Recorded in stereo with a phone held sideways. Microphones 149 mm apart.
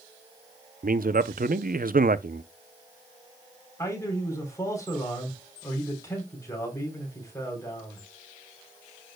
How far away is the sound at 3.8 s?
About 3.5 m.